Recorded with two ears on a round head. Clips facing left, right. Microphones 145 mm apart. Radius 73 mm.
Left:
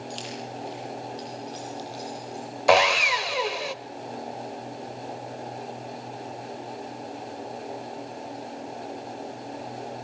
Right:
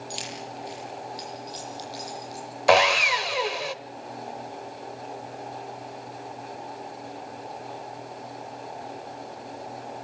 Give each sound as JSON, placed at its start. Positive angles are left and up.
{"t": 0.1, "sound": "keys jangling", "side_deg": -15, "distance_m": 9.5}
{"t": 2.7, "sound": "sawing", "side_deg": 0, "distance_m": 0.8}